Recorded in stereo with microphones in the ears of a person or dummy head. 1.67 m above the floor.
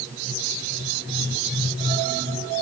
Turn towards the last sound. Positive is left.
No sound to turn to.